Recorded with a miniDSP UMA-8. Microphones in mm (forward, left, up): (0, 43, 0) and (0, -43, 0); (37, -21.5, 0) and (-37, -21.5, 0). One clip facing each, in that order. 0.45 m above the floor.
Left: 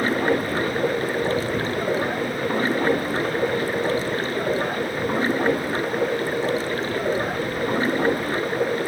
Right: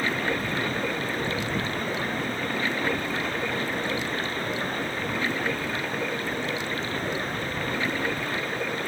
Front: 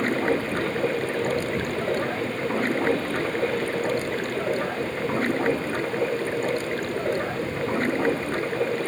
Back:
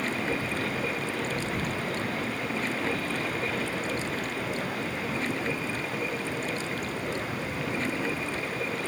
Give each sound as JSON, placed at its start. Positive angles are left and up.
{"t": 0.0, "sound": "running water", "azimuth_deg": 40}